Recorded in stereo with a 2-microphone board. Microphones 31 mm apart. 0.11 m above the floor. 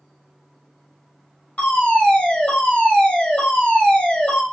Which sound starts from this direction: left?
A fire alarm, at 1.6 s.